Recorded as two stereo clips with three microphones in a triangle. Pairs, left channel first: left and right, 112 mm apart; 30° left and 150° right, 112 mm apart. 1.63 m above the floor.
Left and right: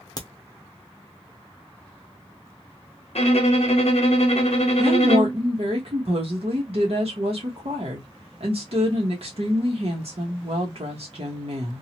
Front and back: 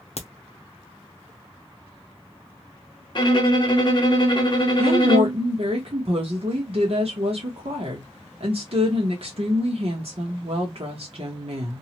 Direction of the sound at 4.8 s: 120° right.